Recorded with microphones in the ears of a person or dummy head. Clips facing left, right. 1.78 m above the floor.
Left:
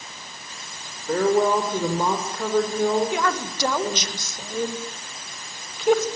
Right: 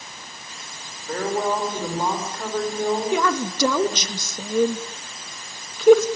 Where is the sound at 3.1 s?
80° right, 2.5 m.